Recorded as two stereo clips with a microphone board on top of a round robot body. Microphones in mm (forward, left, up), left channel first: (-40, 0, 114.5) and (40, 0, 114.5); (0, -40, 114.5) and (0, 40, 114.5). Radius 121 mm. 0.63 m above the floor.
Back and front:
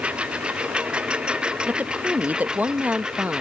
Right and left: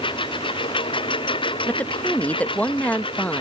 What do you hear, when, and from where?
0.0 s a lawn mower: 80° right; by 3.4 s 85° right
1.7 s a woman speaking: 45° right